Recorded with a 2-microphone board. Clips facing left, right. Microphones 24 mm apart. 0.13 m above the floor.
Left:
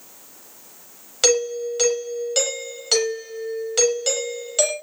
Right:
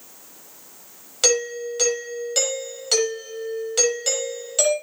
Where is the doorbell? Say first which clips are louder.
Left 2 dB; 5° left (ahead or behind), 6 m.